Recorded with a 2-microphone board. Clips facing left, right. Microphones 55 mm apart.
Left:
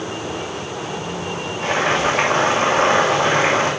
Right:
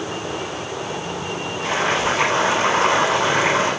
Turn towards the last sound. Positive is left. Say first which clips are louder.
# left 2 dB
turn(degrees=55)  # may be behind; listen again after turning